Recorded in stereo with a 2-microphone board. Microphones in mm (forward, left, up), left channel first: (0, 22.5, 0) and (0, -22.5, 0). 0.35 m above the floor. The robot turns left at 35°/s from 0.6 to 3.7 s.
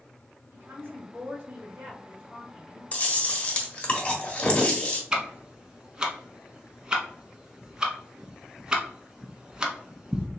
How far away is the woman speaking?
About 1.8 m.